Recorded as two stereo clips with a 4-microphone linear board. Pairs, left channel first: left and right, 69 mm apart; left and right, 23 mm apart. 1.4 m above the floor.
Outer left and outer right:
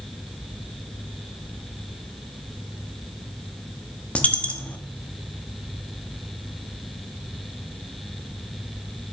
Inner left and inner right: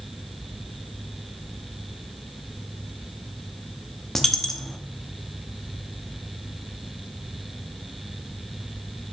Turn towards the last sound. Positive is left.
turn(degrees=20)  # may be behind; listen again after turning